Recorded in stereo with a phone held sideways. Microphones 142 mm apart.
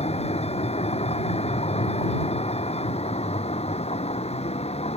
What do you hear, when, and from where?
0.0 s a vehicle: 45° left (ahead or behind)